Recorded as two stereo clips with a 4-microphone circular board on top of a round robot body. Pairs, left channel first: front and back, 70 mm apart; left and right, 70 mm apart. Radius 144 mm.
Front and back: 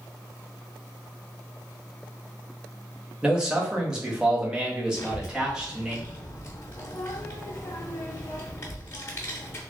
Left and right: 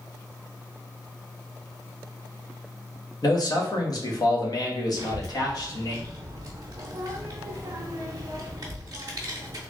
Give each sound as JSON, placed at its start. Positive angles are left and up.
{"t": 3.2, "sound": "a man speaking", "azimuth_deg": 100, "distance_m": 1.3}
{"t": 5.0, "sound": "a child speaking", "azimuth_deg": -60, "distance_m": 0.5}